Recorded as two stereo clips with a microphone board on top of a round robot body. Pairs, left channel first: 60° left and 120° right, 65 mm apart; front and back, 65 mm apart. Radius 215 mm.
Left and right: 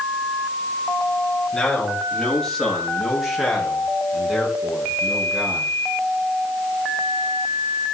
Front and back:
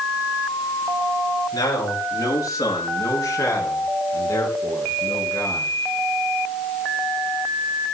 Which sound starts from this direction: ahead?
A man speaking, at 1.5 s.